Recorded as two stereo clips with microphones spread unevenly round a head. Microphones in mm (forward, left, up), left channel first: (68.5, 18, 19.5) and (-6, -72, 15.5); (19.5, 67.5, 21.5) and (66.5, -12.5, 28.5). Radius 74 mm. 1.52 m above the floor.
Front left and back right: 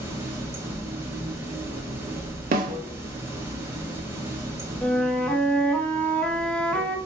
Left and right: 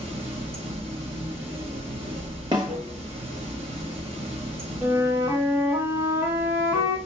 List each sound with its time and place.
0.0 s running water: 60° right, 1.0 m
2.5 s a snare drum: 125° right, 0.7 m
4.8 s a flute: 20° right, 0.9 m